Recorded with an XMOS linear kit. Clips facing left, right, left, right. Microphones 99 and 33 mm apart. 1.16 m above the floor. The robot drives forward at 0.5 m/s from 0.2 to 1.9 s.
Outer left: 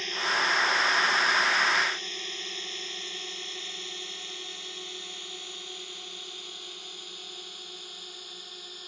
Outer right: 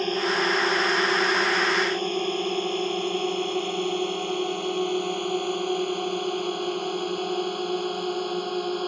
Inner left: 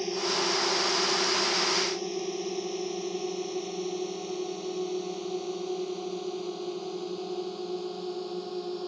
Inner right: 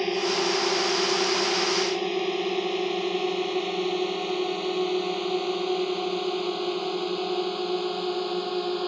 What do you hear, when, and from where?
0.0 s a drone: 50° right (ahead or behind); by 8.9 s 70° right (ahead or behind)